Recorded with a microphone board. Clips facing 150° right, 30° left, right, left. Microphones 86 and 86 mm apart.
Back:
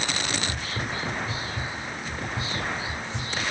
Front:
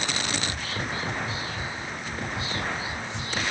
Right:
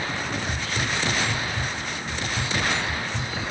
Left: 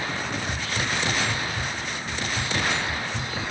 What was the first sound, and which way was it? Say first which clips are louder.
Whispering: even, even; 175° right.